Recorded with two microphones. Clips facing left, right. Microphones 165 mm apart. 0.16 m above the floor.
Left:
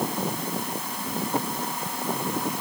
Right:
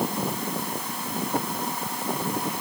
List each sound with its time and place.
Only background noise.